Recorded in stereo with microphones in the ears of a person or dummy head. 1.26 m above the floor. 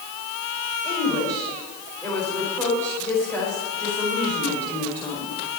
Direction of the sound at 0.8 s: 15° left (ahead or behind).